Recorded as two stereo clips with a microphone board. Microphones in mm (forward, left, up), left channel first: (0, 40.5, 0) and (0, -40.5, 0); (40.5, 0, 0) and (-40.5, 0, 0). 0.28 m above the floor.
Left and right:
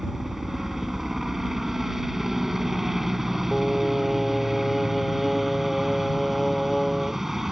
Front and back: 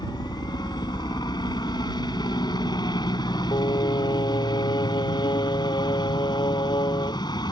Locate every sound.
0.0 s a helicopter: 5° right
3.5 s singing: straight ahead